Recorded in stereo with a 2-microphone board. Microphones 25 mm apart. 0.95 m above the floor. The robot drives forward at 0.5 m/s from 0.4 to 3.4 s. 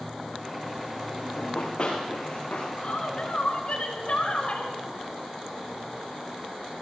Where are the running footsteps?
55° left (ahead or behind), 4 m; by 2.7 s 50° left (ahead or behind), 6 m.